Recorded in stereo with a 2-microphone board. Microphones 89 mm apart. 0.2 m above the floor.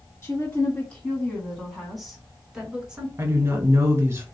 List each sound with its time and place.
0.2 s a woman speaking: 25° left (ahead or behind), 1.8 m; by 3.1 s 10° right (ahead or behind), 2.5 m
3.2 s a woman speaking: 30° right (ahead or behind), 1.6 m